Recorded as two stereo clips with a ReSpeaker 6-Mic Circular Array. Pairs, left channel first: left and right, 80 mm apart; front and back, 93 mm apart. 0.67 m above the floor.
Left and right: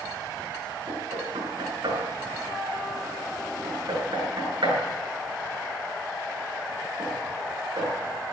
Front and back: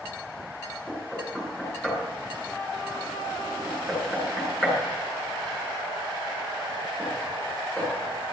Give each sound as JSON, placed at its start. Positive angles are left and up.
{"t": 0.9, "sound": "knocking", "azimuth_deg": -80, "distance_m": 8.5}